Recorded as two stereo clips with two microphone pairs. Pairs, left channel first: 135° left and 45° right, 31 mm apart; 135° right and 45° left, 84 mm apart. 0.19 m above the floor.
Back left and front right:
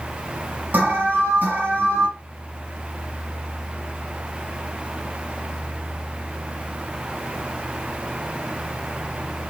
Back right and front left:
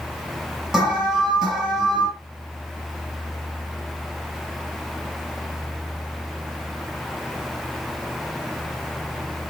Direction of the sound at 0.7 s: 40° right.